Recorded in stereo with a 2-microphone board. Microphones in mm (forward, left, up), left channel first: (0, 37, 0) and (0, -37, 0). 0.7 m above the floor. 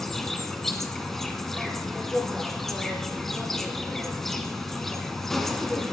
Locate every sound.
0.0 s an insect: 5° left (ahead or behind), 2 m